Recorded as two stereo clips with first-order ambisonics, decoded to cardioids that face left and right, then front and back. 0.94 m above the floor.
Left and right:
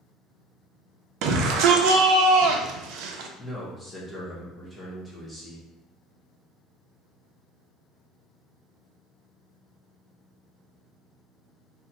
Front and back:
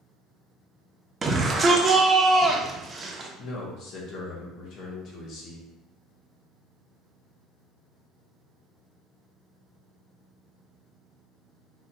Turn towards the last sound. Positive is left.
turn(degrees=10)